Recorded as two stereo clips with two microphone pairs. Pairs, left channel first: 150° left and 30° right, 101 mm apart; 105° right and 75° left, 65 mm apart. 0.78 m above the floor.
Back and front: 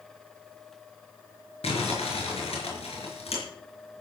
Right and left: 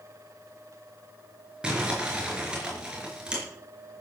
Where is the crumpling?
150° left, 5 m.